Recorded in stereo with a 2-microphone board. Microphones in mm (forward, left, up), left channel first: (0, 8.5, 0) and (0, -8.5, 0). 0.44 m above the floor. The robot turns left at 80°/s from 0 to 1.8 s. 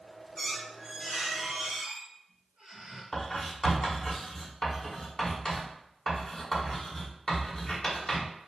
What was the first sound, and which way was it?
A squeak, 35° left.